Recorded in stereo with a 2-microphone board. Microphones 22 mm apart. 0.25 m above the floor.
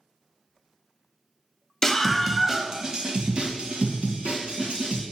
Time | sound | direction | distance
1.8 | a scream | 15° left (ahead or behind) | 1.0 m